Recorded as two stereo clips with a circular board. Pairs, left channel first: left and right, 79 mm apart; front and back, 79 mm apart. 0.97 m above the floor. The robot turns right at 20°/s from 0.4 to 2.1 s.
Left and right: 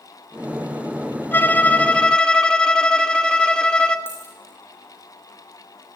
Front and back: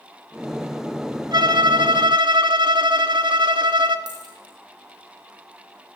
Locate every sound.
1.3 s a violin: 155° left, 1.7 m; by 4.0 s 170° left, 1.7 m
4.1 s a dropped coin: 150° left, 5 m